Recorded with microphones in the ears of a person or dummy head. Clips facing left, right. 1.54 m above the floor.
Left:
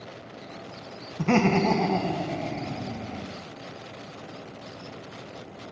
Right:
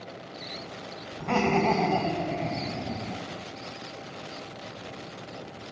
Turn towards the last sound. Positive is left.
turn(degrees=-30)  # may be behind; listen again after turning